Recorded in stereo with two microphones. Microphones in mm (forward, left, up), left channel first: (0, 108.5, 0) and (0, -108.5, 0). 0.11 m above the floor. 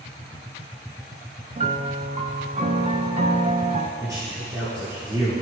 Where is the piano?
35° right (ahead or behind), 0.5 m.